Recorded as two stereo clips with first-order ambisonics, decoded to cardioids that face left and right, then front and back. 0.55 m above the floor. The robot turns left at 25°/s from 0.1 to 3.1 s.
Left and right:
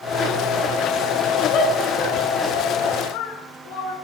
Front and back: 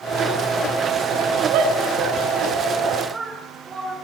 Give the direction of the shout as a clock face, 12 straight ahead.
7 o'clock.